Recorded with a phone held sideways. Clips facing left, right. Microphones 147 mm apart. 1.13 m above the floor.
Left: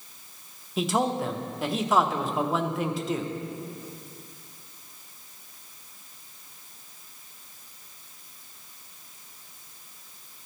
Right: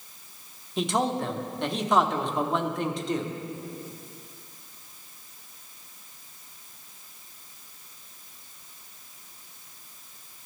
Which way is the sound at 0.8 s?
5° left (ahead or behind).